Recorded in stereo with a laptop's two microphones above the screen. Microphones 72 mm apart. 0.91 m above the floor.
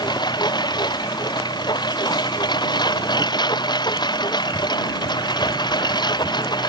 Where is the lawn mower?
80° left.